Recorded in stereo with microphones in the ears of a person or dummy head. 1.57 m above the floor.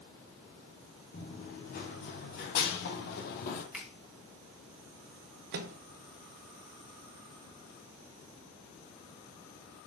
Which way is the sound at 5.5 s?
50° right (ahead or behind).